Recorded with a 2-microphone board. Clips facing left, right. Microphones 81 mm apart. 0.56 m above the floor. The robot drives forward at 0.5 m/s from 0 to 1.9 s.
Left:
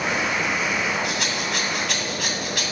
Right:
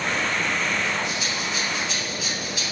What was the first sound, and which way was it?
A rattle, 80° left.